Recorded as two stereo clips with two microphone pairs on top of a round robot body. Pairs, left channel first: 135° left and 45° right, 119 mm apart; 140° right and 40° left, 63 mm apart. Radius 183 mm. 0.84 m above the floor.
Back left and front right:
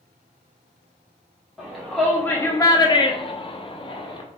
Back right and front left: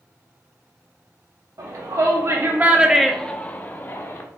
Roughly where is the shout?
Ahead left.